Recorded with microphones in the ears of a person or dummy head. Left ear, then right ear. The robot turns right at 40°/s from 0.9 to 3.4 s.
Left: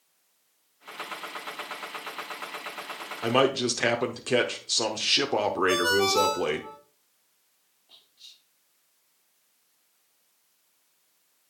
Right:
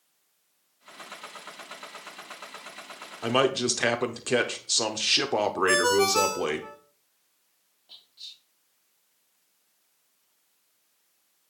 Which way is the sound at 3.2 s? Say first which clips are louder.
Left 1 dB; centre (ahead or behind).